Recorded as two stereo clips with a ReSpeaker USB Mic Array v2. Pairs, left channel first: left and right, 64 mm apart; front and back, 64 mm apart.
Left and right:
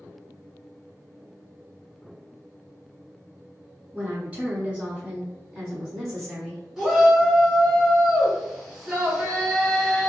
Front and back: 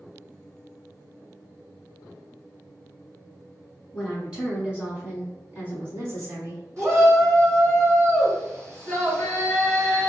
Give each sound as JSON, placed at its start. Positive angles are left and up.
{"t": 3.9, "sound": "a woman speaking", "azimuth_deg": -90, "distance_m": 1.5}
{"t": 6.8, "sound": "a shout", "azimuth_deg": -175, "distance_m": 2.0}